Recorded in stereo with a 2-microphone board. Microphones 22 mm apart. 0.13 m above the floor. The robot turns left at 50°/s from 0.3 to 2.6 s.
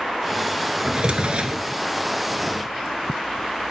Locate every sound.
0.8 s a drawer: 60° right, 0.5 m; by 1.7 s 100° right, 0.5 m